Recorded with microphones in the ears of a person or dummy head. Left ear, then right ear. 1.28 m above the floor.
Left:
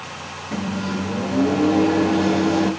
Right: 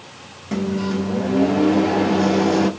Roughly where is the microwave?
Right.